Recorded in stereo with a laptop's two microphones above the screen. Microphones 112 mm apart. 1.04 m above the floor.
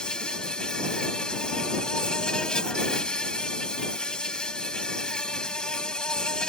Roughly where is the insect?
Centre.